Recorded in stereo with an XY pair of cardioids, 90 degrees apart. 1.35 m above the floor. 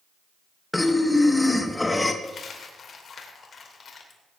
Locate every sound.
0.7 s breathing: 20° left, 1.4 m
2.2 s a dropped coin: 55° left, 2.5 m